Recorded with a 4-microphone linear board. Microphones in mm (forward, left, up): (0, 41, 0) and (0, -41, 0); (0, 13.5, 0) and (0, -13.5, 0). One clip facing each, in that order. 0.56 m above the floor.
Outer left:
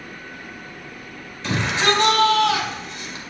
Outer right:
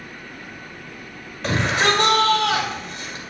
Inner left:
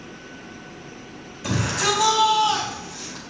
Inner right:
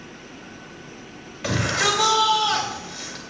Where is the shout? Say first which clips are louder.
Outer right 1 dB, inner right 1 dB; 65° right (ahead or behind), 3.5 m.